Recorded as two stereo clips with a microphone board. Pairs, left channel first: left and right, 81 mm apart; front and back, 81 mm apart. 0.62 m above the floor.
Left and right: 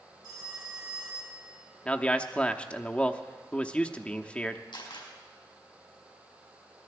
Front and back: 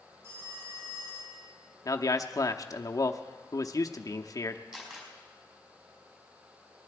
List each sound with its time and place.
0.2 s a phone ringing: 130° right, 5.5 m
1.9 s a man speaking: 20° left, 0.8 m
4.7 s a camera shutter: 100° left, 4.5 m